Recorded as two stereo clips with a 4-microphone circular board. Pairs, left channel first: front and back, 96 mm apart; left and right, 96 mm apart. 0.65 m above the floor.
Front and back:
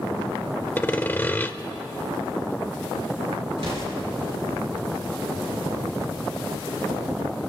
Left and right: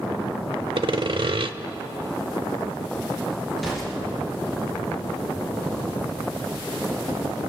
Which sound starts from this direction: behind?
An explosion, at 3.6 s.